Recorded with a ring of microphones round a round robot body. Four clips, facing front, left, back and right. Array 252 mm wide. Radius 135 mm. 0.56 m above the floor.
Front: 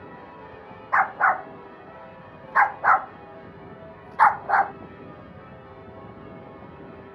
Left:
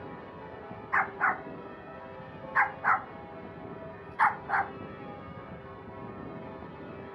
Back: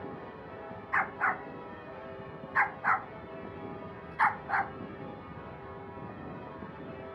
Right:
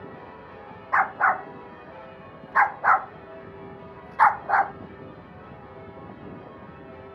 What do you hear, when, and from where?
0.9 s a dog barking: 30° right